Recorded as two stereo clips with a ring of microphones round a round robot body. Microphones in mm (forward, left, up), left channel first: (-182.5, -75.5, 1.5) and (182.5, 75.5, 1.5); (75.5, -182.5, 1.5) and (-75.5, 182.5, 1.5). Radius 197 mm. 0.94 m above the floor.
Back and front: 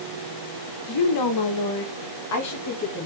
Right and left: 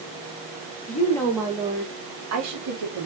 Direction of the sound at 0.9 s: 135° right.